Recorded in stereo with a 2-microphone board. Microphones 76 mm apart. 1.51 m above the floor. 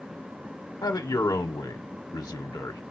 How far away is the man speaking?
About 0.7 m.